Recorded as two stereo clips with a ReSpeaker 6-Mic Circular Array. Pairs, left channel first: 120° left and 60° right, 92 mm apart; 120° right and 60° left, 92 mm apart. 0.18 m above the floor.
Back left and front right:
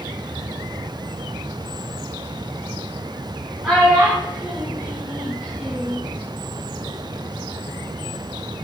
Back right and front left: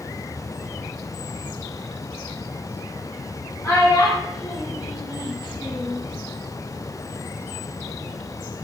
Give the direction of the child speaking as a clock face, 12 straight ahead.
5 o'clock.